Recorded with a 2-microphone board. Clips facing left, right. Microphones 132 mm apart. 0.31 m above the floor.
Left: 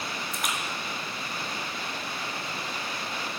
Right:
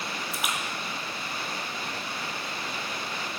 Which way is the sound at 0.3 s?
5° right (ahead or behind).